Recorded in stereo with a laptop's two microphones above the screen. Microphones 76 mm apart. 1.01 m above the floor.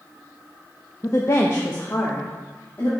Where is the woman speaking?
45° left (ahead or behind), 0.8 m; by 2.9 s 30° left (ahead or behind), 2.5 m.